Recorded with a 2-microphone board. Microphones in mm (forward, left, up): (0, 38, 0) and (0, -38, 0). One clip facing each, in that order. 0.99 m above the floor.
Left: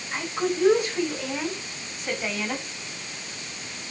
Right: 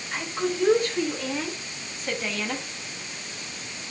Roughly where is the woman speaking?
Centre.